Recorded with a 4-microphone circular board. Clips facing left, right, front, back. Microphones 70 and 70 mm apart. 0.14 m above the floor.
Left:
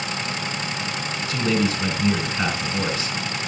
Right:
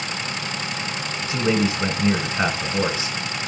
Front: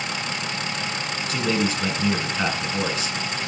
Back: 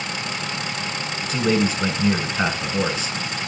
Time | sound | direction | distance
1.2 | a man speaking | 130° right | 1.5 m